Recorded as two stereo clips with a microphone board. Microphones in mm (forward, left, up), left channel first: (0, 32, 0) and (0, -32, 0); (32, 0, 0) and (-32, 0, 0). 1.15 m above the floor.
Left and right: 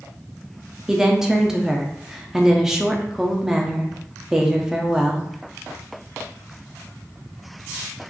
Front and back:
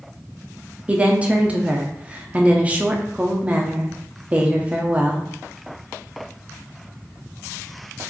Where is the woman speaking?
160° right, 0.6 m.